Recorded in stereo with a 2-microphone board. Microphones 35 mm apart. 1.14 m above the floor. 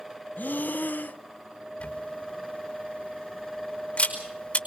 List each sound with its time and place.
0.4 s breathing: 65° left (ahead or behind), 0.5 m
1.8 s a camera shutter: 40° left (ahead or behind), 5 m